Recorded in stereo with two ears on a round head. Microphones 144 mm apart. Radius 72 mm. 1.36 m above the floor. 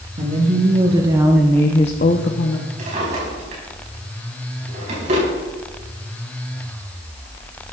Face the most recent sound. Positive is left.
turn(degrees=-45)  # may be behind; listen again after turning